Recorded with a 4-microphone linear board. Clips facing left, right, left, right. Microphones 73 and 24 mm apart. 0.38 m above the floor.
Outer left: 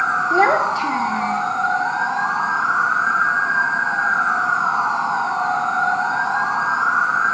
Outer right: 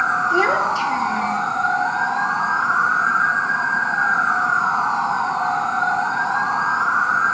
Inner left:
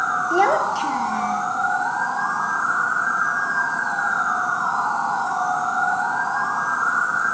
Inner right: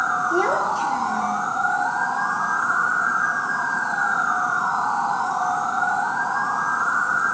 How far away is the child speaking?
About 1.5 m.